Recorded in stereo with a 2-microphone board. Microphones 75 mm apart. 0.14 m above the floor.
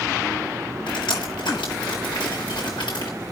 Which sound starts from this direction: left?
Dripping, at 0.9 s.